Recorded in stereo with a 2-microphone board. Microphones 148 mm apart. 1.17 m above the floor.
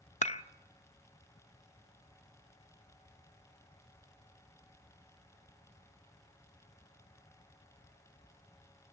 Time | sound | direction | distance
0.2 | dishes clattering | 55° left (ahead or behind) | 0.6 m